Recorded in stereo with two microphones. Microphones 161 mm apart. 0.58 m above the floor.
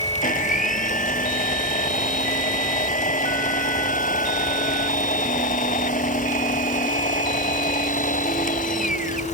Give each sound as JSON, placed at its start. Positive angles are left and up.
{"t": 0.2, "sound": "a blender", "side_deg": 55}